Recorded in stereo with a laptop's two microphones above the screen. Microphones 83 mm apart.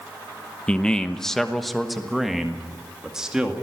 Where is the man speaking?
15° left (ahead or behind), 0.9 m; by 3.5 s 10° right (ahead or behind), 2 m.